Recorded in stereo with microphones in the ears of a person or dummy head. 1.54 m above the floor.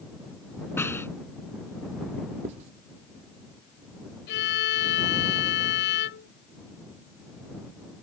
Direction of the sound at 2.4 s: 25° right (ahead or behind).